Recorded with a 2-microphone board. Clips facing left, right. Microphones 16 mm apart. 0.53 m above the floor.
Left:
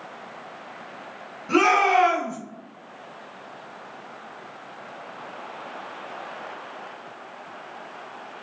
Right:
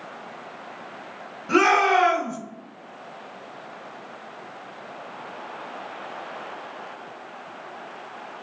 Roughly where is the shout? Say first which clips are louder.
Even; centre.